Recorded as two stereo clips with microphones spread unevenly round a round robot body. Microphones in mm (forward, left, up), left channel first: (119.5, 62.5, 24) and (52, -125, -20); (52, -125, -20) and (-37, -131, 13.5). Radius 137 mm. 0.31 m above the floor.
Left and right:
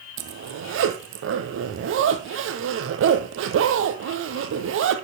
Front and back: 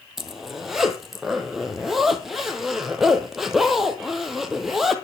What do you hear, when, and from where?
0.2 s a zipper: 90° right, 1.8 m